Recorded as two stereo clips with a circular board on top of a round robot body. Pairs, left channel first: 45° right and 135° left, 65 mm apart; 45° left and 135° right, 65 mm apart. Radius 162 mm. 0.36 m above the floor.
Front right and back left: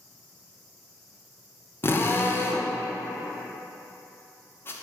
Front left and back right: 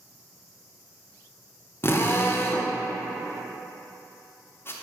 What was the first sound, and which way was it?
A drill, straight ahead.